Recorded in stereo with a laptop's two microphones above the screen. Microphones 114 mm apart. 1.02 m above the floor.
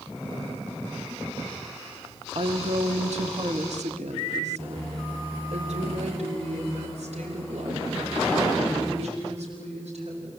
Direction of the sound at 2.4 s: 55° right (ahead or behind).